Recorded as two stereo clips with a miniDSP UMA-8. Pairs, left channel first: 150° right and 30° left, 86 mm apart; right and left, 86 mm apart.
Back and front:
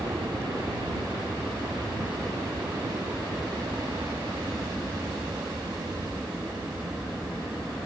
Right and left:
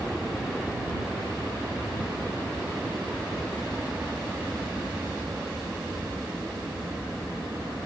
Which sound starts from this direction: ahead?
An aircraft, at 0.0 s.